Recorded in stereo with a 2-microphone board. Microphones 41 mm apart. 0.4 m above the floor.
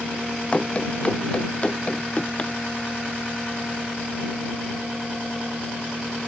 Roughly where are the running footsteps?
Left.